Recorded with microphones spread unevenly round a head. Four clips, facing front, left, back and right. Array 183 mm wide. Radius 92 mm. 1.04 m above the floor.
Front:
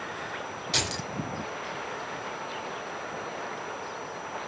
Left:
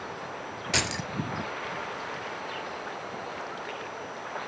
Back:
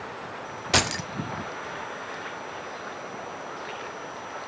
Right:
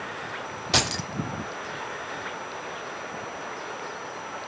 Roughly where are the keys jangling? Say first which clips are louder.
Right 4 dB, back 9 dB; behind right.